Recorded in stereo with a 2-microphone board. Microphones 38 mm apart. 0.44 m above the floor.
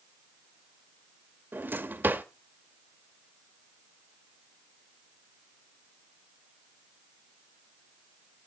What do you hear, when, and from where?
1.5 s a drawer: 60° right (ahead or behind), 0.8 m